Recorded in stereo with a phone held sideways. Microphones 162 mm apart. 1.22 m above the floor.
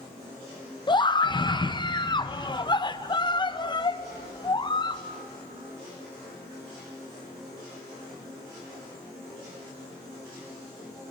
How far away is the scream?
About 0.7 m.